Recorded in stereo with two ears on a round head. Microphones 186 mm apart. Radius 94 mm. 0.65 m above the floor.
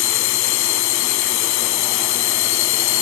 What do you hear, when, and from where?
0.0 s a drone: 75° left (ahead or behind)